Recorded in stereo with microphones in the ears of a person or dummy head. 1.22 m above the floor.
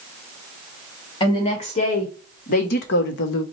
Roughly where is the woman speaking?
Left.